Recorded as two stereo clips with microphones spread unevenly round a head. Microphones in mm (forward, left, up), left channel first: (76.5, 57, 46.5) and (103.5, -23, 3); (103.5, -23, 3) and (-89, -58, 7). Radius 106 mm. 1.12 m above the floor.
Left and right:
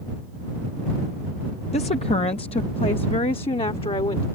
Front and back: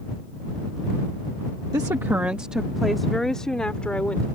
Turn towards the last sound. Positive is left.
turn(degrees=95)